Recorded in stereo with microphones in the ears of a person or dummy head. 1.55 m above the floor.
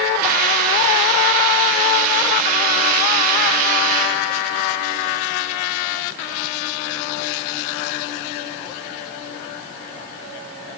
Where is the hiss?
50° right (ahead or behind), 6 m.